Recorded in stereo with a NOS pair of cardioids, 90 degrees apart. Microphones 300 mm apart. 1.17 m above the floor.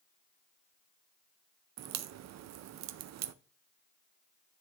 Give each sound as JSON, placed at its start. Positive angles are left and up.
{"t": 1.8, "sound": "a crack", "azimuth_deg": -60, "distance_m": 0.6}